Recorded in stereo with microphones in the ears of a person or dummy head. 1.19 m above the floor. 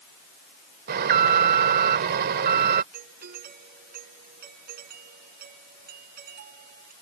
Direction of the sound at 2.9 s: 50° right (ahead or behind).